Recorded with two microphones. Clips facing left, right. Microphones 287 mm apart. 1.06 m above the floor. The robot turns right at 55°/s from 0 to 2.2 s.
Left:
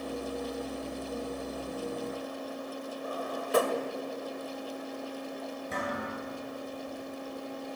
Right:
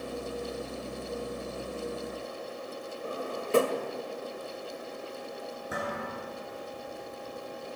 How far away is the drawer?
About 1.6 m.